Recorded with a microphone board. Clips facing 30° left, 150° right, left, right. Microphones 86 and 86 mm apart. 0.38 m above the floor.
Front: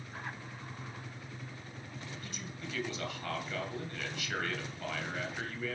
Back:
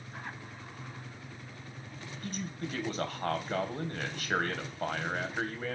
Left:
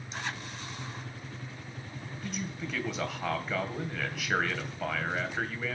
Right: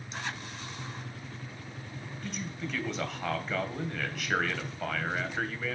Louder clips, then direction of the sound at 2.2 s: Back 6 dB, left 1 dB; straight behind.